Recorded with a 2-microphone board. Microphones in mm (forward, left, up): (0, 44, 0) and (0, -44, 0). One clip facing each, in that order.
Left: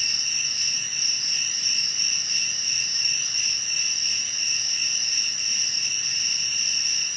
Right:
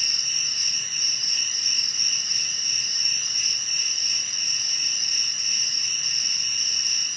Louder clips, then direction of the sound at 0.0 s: Left 1 dB; 25° right (ahead or behind).